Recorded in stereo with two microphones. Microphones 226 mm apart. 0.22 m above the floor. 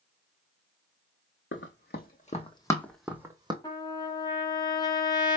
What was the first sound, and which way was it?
Running footsteps, 55° left (ahead or behind).